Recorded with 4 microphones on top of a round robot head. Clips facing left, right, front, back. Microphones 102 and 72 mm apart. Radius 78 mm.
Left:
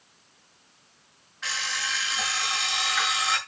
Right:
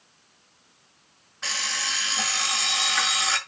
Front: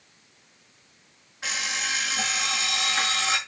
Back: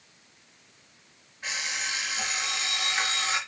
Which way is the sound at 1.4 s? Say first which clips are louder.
Even, front 3 dB; 30° right.